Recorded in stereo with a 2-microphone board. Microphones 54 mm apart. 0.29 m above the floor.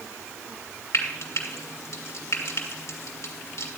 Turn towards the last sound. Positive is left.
turn(degrees=60)  # may be behind; listen again after turning